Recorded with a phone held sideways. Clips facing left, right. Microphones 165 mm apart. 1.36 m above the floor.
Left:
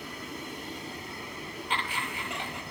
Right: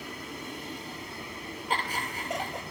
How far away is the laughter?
About 0.8 m.